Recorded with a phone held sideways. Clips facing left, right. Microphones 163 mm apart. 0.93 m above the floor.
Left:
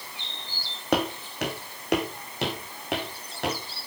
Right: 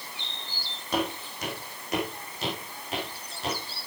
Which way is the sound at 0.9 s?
70° left (ahead or behind).